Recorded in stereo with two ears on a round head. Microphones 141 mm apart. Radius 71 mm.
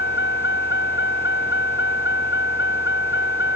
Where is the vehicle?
70° left (ahead or behind); by 3.6 s 75° left (ahead or behind).